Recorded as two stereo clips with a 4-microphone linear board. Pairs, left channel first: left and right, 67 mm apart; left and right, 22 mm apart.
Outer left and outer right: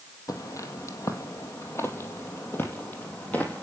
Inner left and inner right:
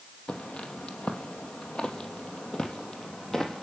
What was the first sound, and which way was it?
Footsteps, 55° left (ahead or behind).